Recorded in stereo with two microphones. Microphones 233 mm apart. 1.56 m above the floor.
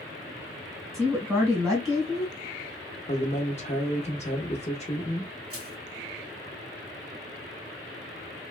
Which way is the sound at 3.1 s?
30° left (ahead or behind).